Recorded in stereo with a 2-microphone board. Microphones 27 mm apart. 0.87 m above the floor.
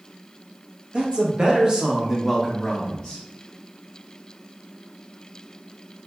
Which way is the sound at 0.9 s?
40° right (ahead or behind).